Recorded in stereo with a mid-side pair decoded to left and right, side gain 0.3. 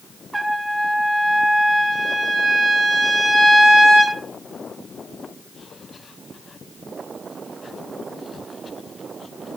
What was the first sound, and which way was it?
A trumpet, 30° right.